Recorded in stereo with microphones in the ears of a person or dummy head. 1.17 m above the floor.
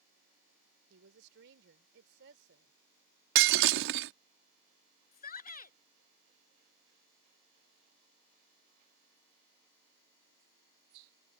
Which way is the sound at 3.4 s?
60° right (ahead or behind).